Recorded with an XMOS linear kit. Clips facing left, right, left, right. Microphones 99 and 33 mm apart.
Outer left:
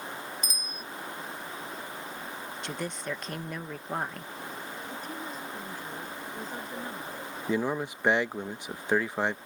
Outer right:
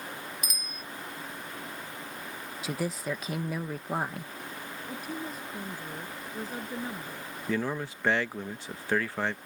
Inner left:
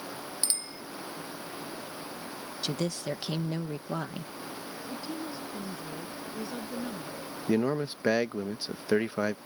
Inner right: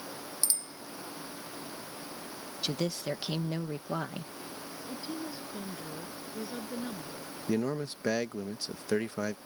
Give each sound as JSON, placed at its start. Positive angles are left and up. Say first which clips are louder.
{"t": 0.4, "sound": "a bicycle bell", "louder": "outer left 1 dB, inner left 2 dB", "side_deg": 35}
{"t": 2.6, "sound": "a woman speaking", "louder": "outer right 4 dB, even", "side_deg": -5}
{"t": 4.9, "sound": "a woman speaking", "louder": "outer right 4 dB, inner left 1 dB", "side_deg": -10}
{"t": 7.5, "sound": "a man speaking", "louder": "outer left 2 dB, inner left 4 dB", "side_deg": 15}